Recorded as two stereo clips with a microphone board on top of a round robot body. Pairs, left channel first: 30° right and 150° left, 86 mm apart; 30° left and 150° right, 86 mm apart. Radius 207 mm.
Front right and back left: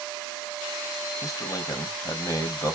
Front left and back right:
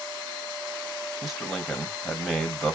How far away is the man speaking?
About 1.7 m.